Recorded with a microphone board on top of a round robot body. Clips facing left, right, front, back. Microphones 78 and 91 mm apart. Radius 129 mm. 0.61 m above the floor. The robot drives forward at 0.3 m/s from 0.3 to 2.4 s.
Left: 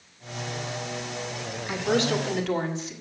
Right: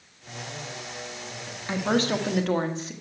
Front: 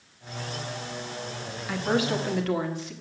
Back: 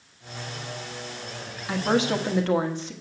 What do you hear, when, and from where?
1.7 s a woman speaking: 125° right, 1.6 m; by 2.9 s 130° right, 1.7 m